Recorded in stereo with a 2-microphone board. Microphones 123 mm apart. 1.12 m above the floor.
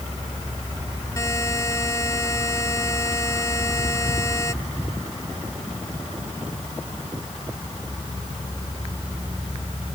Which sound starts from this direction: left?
A buzzer, at 1.2 s.